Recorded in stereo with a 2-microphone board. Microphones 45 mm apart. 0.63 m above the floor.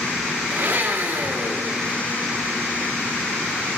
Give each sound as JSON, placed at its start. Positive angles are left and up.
{"t": 0.5, "sound": "a blender", "side_deg": -55, "distance_m": 0.8}